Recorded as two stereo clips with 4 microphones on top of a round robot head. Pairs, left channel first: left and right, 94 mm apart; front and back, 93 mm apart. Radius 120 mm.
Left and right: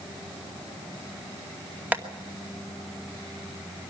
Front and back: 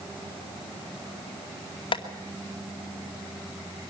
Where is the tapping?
20° right, 2.5 m.